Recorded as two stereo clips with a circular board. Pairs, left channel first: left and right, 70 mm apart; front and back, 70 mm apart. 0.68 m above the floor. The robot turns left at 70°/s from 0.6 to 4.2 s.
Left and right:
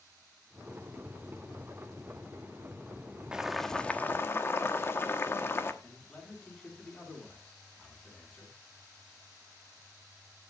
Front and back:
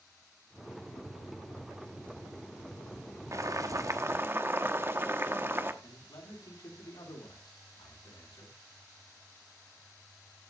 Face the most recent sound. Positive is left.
turn(degrees=10)